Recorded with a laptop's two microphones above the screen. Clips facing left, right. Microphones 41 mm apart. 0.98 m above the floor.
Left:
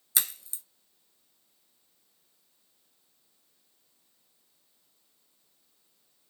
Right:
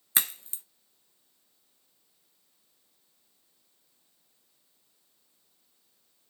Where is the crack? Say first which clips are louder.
Right 3 dB; 35° right (ahead or behind), 0.6 m.